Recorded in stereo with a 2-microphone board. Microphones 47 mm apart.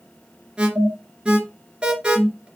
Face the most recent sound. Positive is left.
turn(degrees=-20)  # may be behind; listen again after turning